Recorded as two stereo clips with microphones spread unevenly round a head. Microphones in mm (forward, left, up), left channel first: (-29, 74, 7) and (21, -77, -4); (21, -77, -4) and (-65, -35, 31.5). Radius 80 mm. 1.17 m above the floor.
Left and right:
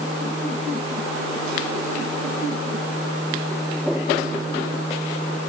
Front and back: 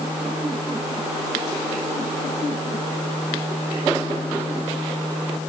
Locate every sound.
Only background noise.